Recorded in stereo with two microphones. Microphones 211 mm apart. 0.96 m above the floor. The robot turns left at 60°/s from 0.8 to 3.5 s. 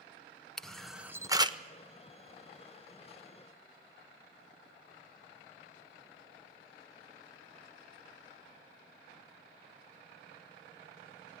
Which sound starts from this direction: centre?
A camera shutter, at 0.6 s.